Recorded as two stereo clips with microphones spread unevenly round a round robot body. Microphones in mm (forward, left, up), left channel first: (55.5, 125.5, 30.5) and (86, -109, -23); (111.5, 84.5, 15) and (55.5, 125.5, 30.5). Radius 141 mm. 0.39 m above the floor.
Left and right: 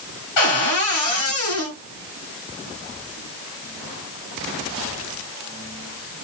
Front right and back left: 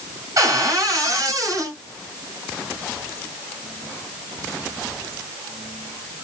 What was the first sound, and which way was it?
A cupboard door, 105° left.